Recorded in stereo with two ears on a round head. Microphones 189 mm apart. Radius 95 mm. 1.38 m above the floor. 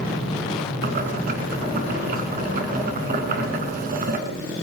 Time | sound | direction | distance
0.8 | boiling | 40° right (ahead or behind) | 2.5 m